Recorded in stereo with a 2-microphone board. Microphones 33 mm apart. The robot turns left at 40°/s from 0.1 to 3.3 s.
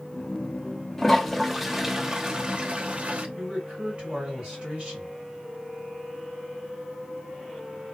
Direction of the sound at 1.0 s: 15° left.